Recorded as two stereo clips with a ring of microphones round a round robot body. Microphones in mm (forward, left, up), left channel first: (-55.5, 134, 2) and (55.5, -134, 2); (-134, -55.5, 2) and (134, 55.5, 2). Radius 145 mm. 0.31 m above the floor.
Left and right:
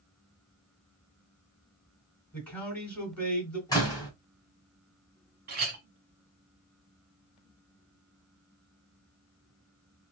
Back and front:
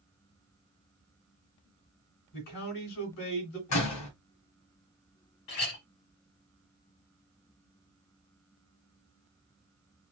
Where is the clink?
125° right, 1.4 m.